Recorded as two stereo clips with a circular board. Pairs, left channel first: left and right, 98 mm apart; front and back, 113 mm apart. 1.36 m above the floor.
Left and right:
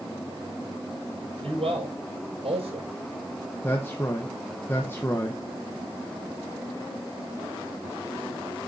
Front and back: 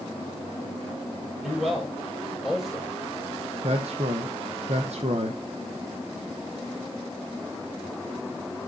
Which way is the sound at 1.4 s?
90° right.